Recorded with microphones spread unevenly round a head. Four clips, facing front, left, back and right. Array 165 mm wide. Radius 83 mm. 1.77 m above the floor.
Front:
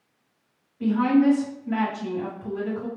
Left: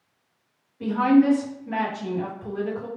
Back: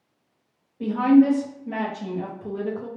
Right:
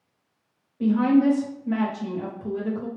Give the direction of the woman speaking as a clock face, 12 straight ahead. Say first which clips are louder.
Left 1 dB, back 3 dB; 5 o'clock.